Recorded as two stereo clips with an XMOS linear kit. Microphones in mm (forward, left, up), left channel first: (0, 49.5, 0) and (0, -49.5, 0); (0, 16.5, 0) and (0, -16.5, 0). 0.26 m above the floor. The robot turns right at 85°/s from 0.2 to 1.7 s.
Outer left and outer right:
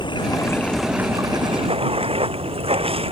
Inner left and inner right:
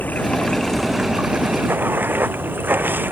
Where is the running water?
125° left; by 3.1 s 105° right.